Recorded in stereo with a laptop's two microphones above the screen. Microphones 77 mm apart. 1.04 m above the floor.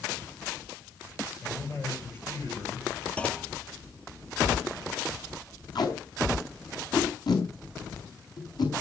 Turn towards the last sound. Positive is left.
turn(degrees=60)  # may be behind; listen again after turning